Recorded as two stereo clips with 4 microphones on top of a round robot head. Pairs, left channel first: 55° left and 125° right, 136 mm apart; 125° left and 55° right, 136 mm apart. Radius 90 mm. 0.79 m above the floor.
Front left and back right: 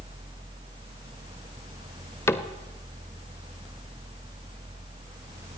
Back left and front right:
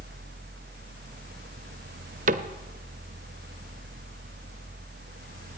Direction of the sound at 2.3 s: 20° right.